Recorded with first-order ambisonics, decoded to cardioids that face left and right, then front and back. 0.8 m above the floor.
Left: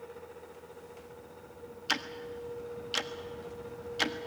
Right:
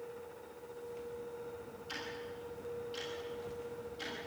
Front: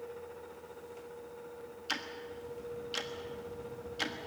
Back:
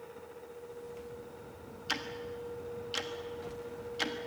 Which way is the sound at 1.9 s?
95° left.